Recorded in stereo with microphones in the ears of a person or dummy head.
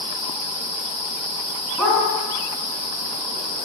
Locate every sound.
1.8 s a dog barking: 5° left (ahead or behind), 3.5 m